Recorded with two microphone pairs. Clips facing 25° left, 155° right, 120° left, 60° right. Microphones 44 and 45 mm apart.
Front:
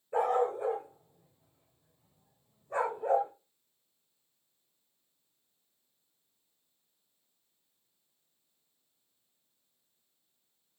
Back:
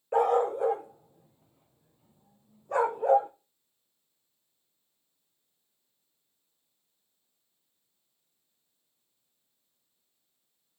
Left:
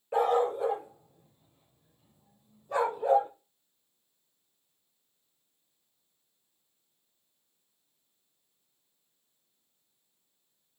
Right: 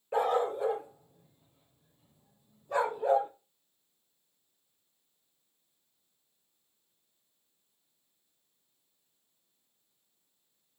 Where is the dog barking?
150° right, 1.8 m.